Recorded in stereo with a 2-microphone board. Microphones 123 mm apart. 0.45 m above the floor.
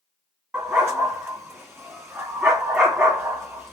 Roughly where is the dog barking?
Centre.